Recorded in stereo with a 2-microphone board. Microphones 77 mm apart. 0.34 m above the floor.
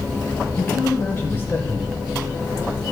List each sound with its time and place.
0.6 s a man speaking: 30° left (ahead or behind), 1.1 m